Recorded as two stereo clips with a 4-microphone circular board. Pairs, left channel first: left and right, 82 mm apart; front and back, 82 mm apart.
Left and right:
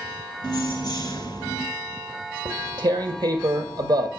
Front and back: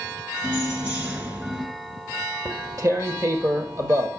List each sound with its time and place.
0.4 s keys jangling: 105° left, 1.9 m
2.5 s tearing paper: 130° right, 1.3 m